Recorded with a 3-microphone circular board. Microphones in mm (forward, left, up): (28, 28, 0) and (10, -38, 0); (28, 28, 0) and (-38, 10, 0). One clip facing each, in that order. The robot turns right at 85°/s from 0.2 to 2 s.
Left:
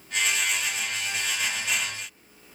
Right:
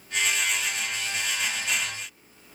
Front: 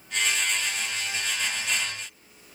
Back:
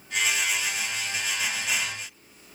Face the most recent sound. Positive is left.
No sound to turn to.